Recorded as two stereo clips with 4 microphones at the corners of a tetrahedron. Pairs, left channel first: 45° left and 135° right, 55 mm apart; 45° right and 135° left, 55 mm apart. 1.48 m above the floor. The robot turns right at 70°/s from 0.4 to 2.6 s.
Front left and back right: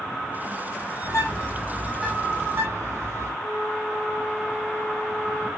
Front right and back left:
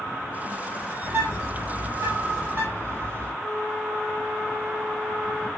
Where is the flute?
170° right, 8 m.